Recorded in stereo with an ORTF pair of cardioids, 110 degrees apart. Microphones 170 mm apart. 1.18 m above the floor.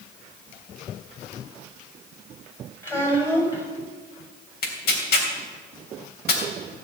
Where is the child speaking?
15° left, 5 m.